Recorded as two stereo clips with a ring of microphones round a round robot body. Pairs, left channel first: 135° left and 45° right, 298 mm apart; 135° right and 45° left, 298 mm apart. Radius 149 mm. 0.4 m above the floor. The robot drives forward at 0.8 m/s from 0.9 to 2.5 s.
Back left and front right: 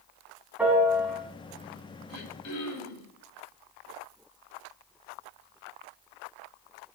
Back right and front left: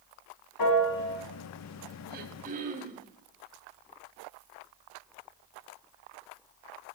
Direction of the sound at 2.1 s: 100° left.